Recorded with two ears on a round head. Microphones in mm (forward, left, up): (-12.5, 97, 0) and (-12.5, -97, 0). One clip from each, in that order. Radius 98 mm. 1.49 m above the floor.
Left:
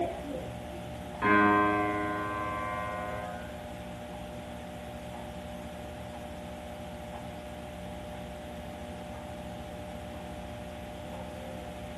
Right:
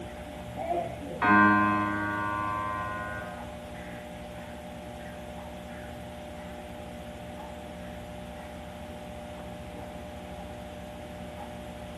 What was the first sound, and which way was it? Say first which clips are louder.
A piano: right 3 dB; 30° right (ahead or behind).